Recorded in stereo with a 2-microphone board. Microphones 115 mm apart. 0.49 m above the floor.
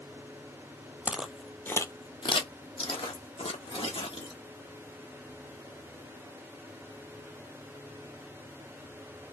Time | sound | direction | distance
1.1 | footsteps | 15° right (ahead or behind) | 0.7 m